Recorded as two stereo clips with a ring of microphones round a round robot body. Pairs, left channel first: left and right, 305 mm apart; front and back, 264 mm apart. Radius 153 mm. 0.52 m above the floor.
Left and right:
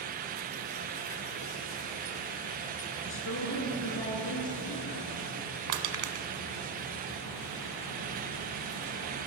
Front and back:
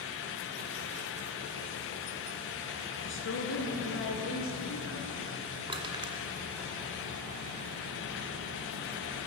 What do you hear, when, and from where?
3.0 s a woman speaking: 40° left, 7 m; by 5.1 s 35° left, 6 m
5.7 s crushing: 105° right, 1.7 m